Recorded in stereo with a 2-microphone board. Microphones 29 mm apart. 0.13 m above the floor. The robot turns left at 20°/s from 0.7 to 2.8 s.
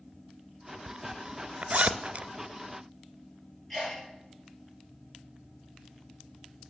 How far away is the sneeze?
About 3.5 m.